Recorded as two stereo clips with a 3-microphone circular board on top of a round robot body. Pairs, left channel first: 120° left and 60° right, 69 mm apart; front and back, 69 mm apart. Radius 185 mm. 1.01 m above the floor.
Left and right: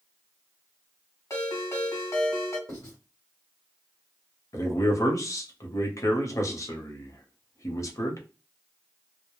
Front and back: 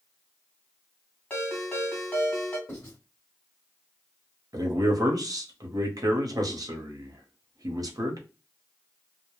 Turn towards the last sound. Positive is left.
turn(degrees=155)